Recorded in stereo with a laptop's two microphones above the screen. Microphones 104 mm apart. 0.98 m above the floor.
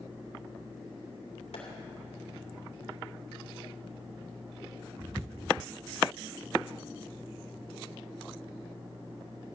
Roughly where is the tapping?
Left.